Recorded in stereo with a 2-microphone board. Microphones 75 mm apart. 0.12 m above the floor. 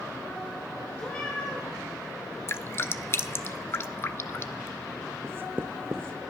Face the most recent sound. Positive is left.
turn(degrees=-30)  # may be behind; listen again after turning